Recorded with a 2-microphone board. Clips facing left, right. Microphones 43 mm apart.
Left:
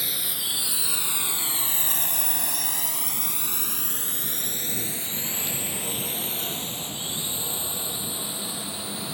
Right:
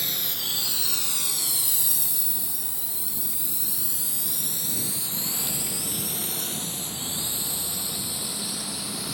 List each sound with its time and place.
0.0 s a drone: 5° left (ahead or behind); by 9.1 s 30° left (ahead or behind)